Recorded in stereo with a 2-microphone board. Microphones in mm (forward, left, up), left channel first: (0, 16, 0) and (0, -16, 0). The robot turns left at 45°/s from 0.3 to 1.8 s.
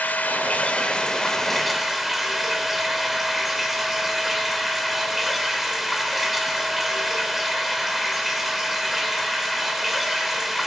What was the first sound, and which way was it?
Running water, 60° left.